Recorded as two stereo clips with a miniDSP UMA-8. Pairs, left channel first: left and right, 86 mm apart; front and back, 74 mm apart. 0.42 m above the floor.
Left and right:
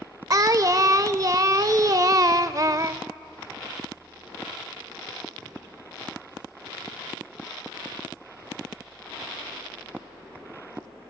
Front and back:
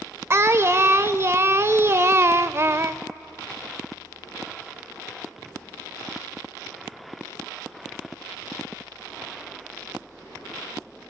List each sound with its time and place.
0.3 s singing: 130° right, 0.6 m